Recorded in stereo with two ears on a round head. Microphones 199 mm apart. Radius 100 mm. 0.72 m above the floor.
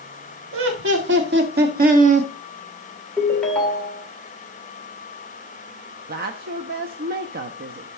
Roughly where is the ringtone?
Centre.